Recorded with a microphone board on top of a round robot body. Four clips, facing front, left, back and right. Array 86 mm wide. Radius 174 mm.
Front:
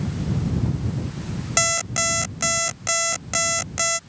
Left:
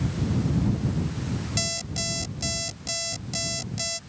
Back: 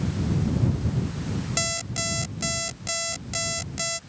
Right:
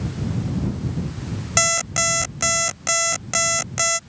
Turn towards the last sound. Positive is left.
turn(degrees=-60)